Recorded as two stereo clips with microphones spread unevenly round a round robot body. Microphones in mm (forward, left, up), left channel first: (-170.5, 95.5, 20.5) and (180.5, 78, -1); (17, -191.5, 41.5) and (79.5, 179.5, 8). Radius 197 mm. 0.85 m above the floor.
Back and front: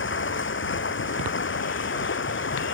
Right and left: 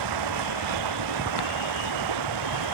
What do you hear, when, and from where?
0.0 s running water: 120° left